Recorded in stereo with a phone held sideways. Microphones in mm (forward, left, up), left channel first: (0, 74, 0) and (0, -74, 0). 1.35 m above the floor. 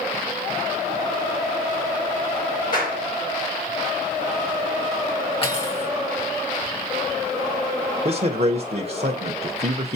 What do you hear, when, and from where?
2.7 s a clap: 70° left (ahead or behind), 5.5 m
5.4 s cutlery clinking: 40° left (ahead or behind), 2 m
8.1 s a man speaking: 50° right (ahead or behind), 0.9 m